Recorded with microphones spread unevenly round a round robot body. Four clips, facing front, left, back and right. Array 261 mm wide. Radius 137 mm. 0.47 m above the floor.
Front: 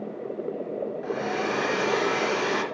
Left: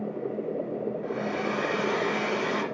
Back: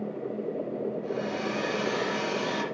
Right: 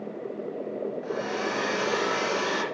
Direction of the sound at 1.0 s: 15° right.